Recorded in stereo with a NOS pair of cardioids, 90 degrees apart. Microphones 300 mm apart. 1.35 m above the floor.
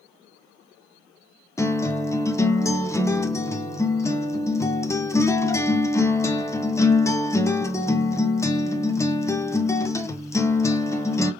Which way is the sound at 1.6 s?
10° left.